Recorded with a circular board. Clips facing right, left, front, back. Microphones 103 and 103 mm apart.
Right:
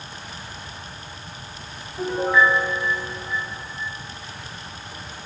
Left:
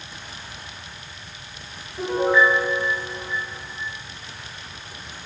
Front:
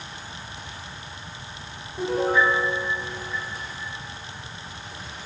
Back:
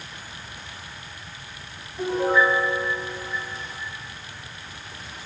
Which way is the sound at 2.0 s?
10° left.